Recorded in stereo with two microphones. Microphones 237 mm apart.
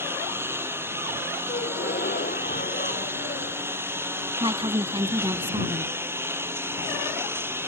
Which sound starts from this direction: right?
A woman speaking, at 4.4 s.